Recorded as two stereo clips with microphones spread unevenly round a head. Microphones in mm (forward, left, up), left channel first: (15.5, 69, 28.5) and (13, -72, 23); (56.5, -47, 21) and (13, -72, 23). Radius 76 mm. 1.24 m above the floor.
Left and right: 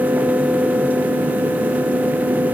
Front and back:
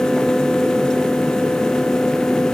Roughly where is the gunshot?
I don't hear a gunshot.